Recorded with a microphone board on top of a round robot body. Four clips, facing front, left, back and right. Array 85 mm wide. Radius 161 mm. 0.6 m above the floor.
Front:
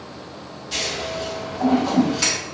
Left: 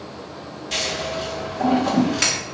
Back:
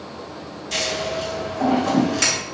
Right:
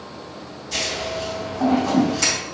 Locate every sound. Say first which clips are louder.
0.7 s scissors: even, back 3 dB; 105° left, 2.0 m